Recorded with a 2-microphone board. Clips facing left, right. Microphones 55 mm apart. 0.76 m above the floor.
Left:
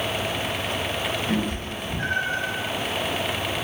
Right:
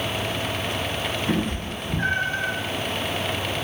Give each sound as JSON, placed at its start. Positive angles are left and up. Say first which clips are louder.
{"t": 1.3, "sound": "a cat meowing", "louder": "right 1 dB", "side_deg": -45, "distance_m": 0.8}